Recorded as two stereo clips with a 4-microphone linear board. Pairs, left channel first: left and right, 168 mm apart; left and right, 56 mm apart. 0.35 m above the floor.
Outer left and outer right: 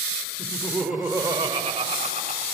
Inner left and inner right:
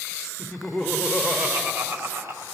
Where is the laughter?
15° left (ahead or behind), 1.0 m; by 2.5 s 45° right (ahead or behind), 1.5 m.